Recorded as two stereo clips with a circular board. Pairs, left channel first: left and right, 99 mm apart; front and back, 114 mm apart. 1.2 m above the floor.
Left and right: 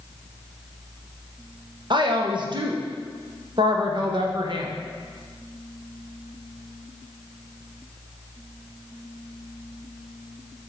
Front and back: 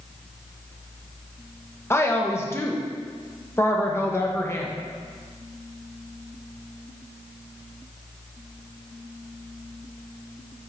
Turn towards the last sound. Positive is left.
turn(degrees=-65)